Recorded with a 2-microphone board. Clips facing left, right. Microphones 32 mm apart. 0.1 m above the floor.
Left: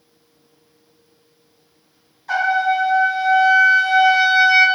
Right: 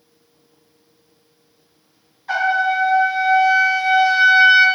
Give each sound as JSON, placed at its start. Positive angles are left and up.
{"t": 2.3, "sound": "a trumpet", "side_deg": -15, "distance_m": 0.9}